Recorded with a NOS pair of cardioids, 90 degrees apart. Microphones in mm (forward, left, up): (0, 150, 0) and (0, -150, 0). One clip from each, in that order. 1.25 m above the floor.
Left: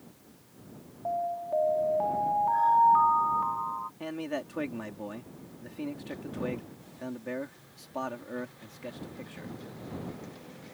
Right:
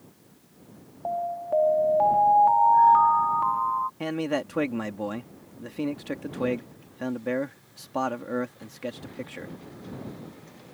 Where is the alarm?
45° right.